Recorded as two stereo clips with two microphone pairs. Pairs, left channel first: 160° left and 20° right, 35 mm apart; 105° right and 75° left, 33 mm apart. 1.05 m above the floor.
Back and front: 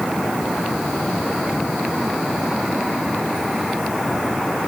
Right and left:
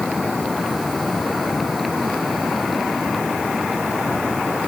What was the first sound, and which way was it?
Only background noise.